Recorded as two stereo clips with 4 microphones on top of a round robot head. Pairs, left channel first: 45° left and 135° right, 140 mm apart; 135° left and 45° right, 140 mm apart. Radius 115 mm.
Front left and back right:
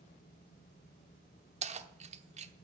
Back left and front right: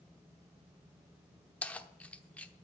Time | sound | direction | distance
1.6 | keys jangling | 145° right | 0.9 m